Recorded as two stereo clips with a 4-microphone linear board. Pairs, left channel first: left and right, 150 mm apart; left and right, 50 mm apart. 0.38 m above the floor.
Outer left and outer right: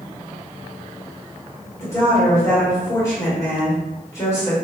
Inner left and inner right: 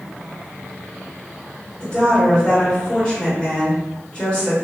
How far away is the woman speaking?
About 1.5 m.